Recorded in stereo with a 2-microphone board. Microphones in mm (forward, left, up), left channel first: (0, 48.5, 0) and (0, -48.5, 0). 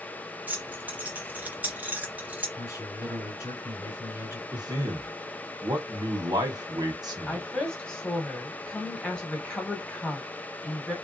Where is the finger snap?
No finger snap in this recording.